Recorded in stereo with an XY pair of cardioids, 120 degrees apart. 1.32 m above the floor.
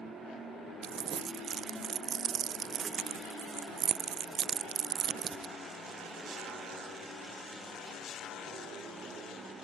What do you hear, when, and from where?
0.8 s crumpling: 55° right